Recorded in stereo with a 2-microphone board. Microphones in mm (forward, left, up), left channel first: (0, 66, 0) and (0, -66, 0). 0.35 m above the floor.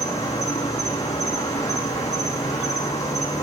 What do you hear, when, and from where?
0.0 s an insect: 25° left (ahead or behind), 8 m